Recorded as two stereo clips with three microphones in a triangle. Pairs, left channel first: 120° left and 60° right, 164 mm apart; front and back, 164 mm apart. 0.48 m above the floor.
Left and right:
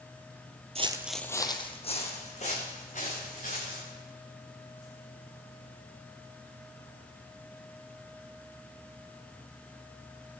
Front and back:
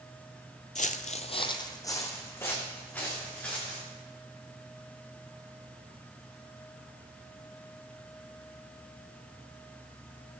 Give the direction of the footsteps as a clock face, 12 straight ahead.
1 o'clock.